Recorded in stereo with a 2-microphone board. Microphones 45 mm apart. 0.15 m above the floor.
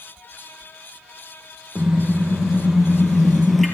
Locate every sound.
1.8 s a car horn: 10° right (ahead or behind), 2.5 m; by 3.7 s 5° left (ahead or behind), 1.6 m